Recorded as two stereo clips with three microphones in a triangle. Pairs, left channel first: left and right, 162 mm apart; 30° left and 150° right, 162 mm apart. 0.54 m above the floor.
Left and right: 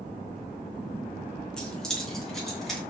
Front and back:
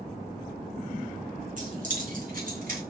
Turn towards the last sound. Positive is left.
turn(degrees=180)